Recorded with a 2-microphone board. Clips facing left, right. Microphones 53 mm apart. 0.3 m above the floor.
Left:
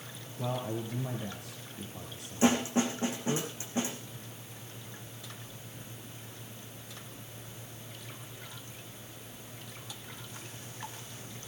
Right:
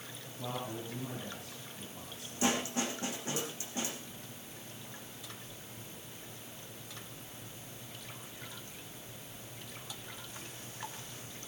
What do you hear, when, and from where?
0.4 s a man speaking: 30° left (ahead or behind), 5.5 m
2.4 s a snare drum: 25° left (ahead or behind), 6.5 m